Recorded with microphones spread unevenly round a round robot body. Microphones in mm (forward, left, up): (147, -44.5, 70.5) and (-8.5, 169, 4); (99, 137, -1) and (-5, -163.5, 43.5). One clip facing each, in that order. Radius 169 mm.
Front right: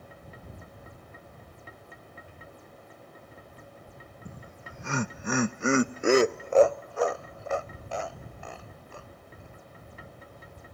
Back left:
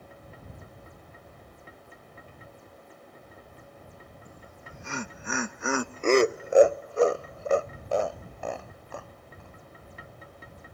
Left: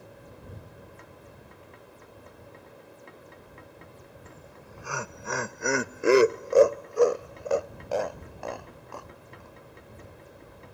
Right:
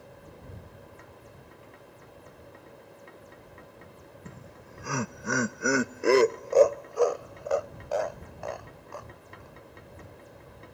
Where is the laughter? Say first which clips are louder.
Front right 2 dB, right 1 dB; 50° right; by 9.6 s 120° left.